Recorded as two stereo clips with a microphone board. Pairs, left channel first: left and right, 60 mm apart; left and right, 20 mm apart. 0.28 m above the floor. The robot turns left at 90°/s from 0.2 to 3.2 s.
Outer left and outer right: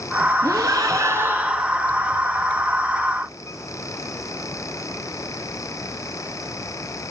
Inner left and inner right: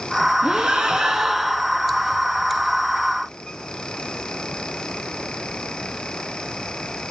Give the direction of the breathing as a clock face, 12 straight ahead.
2 o'clock.